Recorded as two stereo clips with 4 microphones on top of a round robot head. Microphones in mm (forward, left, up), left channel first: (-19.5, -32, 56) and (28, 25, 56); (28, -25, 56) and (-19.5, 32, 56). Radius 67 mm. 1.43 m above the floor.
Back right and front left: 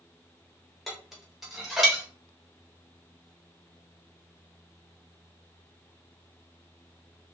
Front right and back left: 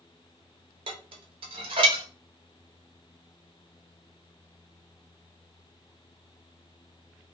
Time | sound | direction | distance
0.9 | dishes clattering | 140° left | 1.0 m